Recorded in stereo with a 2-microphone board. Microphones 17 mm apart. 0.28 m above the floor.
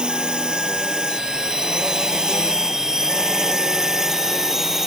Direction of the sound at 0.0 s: 65° right (ahead or behind).